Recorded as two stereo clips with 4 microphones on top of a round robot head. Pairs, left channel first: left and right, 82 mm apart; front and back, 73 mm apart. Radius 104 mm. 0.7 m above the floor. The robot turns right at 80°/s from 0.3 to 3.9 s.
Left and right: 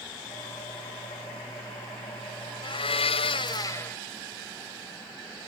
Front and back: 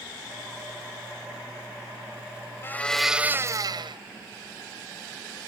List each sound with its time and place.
2.6 s a blender: 60° left; by 4.0 s 165° left